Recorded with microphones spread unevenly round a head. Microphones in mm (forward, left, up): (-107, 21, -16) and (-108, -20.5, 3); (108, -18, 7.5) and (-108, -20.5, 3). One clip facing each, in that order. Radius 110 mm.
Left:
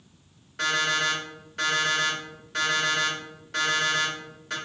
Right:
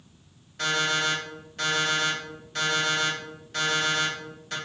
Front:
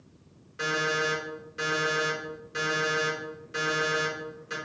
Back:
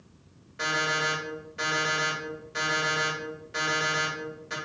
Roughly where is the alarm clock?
Left.